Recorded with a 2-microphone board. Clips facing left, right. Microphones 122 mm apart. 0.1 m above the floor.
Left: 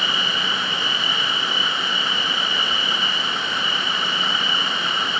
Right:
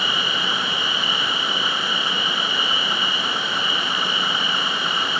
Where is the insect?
60° right (ahead or behind), 6.5 m.